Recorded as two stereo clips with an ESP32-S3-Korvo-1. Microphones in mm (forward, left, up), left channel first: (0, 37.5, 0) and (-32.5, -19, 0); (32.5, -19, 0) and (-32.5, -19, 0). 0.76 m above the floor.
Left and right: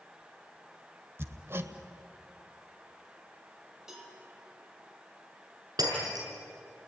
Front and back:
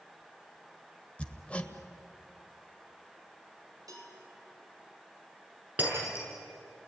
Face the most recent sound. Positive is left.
turn(degrees=-120)